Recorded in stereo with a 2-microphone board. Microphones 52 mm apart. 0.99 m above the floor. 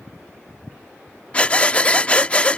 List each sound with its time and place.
1.3 s breathing: 25° left (ahead or behind)